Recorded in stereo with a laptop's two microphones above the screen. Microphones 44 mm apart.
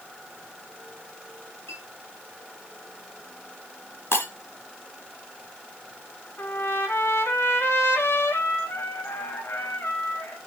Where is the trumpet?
75° left (ahead or behind), 2.5 m.